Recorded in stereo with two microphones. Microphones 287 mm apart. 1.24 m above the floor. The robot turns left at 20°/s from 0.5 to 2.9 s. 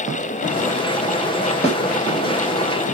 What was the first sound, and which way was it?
A snare drum, 20° left (ahead or behind).